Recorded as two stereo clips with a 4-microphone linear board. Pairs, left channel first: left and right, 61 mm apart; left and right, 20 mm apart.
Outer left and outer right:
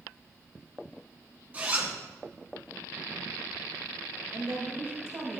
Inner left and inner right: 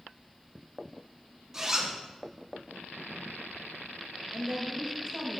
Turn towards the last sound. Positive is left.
turn(degrees=-50)  # may be behind; listen again after turning